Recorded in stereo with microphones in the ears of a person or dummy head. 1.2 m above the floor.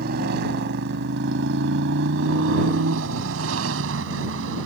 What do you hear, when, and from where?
0.0 s a motorcycle: 55° right (ahead or behind); by 4.7 s 80° right